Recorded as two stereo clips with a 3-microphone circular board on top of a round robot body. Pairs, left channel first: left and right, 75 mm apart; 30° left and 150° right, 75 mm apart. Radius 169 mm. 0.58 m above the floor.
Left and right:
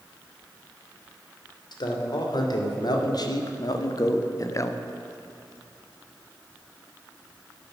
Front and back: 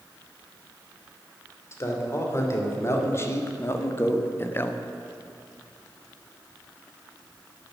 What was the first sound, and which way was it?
A man speaking, 80° left.